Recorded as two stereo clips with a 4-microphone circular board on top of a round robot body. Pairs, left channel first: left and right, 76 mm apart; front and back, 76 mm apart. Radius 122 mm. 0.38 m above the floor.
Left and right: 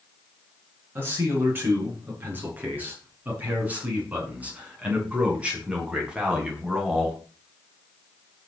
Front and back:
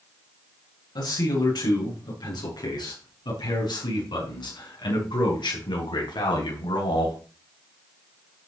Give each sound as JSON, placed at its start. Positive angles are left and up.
{"t": 0.9, "sound": "a man speaking", "azimuth_deg": -25, "distance_m": 8.0}